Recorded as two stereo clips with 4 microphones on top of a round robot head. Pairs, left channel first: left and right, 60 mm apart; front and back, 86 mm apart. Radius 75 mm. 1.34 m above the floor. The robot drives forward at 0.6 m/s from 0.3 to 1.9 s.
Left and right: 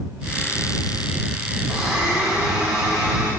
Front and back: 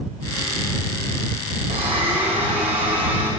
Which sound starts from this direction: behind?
A blender, at 1.7 s.